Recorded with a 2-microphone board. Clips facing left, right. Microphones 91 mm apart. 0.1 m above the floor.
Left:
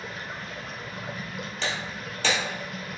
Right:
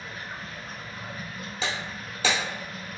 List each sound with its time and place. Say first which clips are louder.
0.0 s running water: left 2 dB; 80° left, 0.7 m
1.6 s breaking glass: right 1 dB; 5° right (ahead or behind), 1.4 m